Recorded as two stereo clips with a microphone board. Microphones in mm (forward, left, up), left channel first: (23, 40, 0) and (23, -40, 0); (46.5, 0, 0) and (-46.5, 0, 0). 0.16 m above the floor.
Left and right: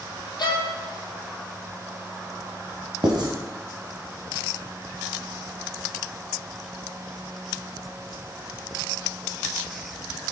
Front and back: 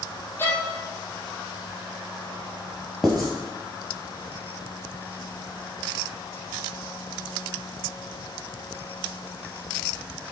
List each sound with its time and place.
0.4 s a violin: 65° left, 1.0 m
3.0 s writing: 90° right, 1.2 m